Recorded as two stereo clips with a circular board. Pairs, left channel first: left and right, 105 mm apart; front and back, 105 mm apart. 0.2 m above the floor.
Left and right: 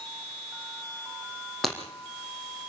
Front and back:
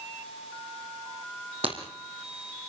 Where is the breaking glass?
Straight behind, 4.5 m.